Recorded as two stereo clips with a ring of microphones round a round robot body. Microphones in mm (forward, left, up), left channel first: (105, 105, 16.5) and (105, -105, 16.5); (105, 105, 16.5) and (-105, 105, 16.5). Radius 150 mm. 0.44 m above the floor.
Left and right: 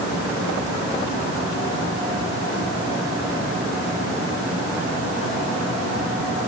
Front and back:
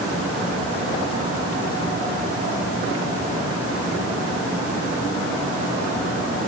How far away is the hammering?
No hammering in this recording.